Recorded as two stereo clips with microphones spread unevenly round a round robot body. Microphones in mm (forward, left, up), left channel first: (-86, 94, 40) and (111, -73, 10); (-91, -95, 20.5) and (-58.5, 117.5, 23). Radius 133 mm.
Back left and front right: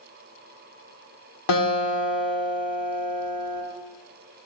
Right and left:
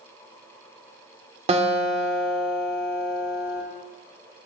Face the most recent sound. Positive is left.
turn(degrees=140)